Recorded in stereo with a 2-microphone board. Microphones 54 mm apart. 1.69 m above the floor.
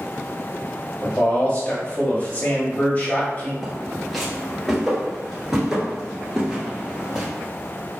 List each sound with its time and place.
1.0 s a man speaking: 35° left (ahead or behind), 1.5 m
3.6 s footsteps: 5° left (ahead or behind), 1.7 m; by 7.2 s 15° right (ahead or behind), 2 m